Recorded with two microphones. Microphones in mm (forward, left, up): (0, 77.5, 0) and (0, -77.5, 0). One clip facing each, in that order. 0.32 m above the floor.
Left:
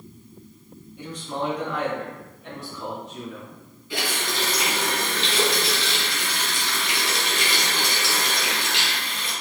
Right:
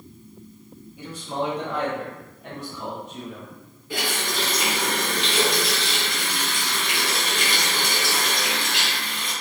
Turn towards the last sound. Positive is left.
turn(degrees=-65)  # may be behind; listen again after turning